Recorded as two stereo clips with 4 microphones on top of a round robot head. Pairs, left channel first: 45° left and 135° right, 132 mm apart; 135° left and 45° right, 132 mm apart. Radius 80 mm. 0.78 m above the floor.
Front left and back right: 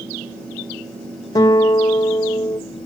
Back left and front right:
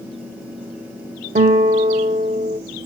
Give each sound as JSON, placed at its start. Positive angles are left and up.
{"t": 1.4, "sound": "a guitar", "azimuth_deg": -15, "distance_m": 0.6}